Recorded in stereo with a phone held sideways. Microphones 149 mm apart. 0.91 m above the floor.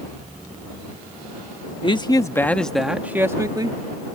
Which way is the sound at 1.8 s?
35° left (ahead or behind).